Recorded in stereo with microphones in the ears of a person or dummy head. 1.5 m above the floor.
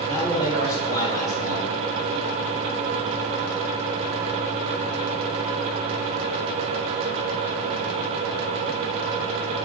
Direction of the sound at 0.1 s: 25° left (ahead or behind).